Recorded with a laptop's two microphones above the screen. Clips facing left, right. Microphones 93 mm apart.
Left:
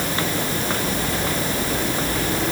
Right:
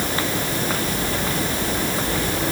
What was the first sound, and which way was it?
Only background noise.